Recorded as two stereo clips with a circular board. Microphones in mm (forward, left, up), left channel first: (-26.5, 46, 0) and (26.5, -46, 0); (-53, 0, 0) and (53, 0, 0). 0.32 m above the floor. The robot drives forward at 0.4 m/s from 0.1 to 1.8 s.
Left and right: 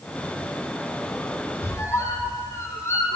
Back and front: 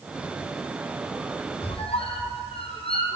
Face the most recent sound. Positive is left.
turn(degrees=180)